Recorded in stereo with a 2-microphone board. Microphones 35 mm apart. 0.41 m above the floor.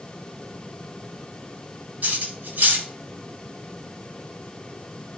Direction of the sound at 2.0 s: 55° right (ahead or behind).